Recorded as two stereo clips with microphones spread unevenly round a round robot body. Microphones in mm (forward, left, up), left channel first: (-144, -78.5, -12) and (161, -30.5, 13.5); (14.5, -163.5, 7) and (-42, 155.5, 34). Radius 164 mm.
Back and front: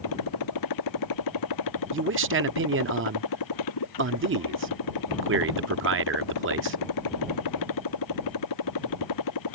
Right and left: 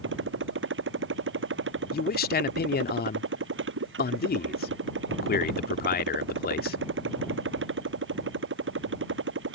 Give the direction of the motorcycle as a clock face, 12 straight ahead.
7 o'clock.